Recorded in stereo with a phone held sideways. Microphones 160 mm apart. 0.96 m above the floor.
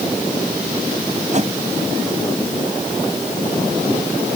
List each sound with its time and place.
1.3 s a whoosh: 50° right (ahead or behind)